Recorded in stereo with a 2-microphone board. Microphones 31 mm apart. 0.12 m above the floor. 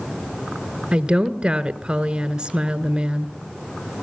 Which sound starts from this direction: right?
A woman speaking, at 0.9 s.